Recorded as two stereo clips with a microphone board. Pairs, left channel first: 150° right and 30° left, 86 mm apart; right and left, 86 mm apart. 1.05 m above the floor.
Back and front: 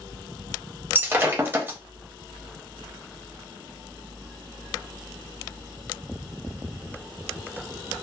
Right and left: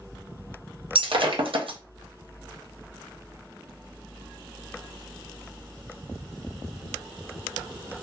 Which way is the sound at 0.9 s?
95° left.